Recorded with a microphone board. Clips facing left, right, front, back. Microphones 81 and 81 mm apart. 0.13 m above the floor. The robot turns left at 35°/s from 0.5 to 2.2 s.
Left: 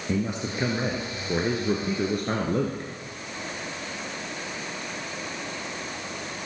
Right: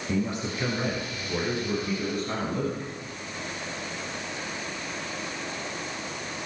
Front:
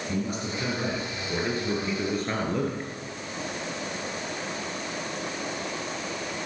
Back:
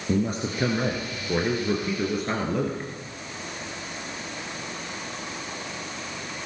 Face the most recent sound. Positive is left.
turn(degrees=95)